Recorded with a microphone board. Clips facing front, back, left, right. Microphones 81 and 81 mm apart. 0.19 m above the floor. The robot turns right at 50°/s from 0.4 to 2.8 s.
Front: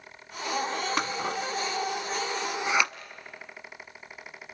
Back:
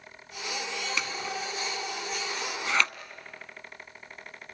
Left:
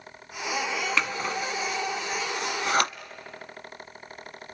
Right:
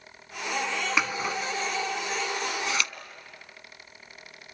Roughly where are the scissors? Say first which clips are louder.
Front 4 dB, even; ahead.